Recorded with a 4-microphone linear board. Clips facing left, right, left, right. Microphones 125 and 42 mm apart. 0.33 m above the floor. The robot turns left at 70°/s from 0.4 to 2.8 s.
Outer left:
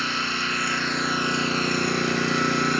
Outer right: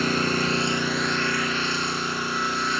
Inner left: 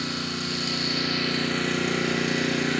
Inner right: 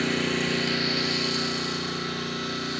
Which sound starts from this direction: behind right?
An engine running, at 0.0 s.